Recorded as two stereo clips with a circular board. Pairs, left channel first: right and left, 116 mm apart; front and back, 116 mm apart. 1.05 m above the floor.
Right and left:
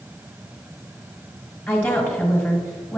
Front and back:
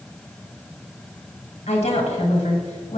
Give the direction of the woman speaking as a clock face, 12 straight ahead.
12 o'clock.